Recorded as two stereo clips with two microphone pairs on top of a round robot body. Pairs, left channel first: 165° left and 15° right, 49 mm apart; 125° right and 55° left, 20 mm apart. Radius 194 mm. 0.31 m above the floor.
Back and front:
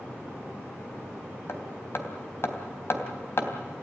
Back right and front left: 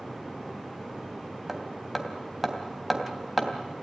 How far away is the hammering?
About 3 m.